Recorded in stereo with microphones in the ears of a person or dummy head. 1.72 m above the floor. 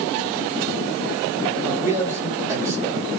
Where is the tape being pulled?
I don't hear tape being pulled.